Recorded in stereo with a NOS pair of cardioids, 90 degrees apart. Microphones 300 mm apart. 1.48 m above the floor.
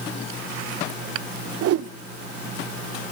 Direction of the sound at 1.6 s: 50° right.